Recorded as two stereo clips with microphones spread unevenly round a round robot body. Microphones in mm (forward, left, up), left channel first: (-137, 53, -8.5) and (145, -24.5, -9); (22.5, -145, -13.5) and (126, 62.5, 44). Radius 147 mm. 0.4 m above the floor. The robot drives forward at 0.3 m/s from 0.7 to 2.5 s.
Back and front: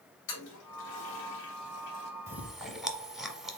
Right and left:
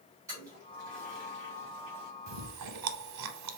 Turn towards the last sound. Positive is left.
turn(degrees=75)